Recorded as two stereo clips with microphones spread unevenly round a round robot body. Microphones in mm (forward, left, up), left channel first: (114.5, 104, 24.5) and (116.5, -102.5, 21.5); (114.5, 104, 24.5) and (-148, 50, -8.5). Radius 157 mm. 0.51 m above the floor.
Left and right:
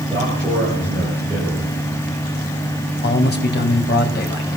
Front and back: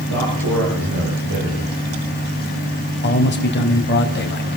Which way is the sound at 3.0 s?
60° left.